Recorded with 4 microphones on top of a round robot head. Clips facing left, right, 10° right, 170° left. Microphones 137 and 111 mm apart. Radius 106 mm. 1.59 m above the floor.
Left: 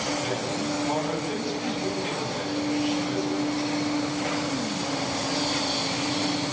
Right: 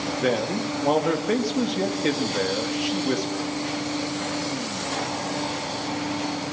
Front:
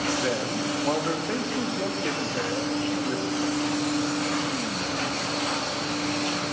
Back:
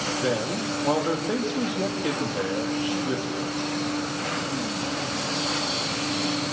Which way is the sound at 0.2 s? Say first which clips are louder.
Right 5 dB, back 1 dB; 110° right.